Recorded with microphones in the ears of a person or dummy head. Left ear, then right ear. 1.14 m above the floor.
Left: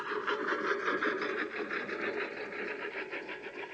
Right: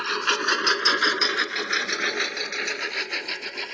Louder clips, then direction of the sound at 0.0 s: Right 10 dB; 75° right (ahead or behind).